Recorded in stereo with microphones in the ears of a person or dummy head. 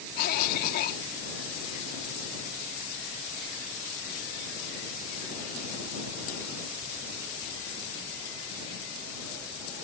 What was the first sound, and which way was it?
A cough, 50° left (ahead or behind).